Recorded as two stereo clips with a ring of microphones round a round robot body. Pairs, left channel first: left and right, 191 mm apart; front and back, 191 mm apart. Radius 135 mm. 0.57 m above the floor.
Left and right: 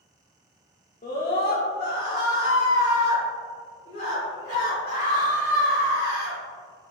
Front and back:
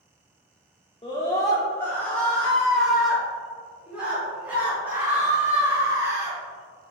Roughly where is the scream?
Ahead left.